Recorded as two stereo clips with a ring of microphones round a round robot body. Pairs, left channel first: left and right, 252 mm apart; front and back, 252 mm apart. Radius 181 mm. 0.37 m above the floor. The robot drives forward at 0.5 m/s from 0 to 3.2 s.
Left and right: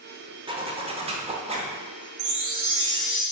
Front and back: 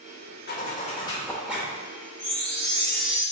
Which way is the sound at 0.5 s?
25° right.